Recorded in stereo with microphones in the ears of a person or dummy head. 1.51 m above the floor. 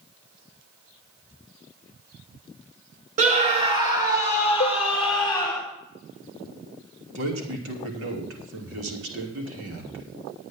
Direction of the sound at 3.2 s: 45° right (ahead or behind).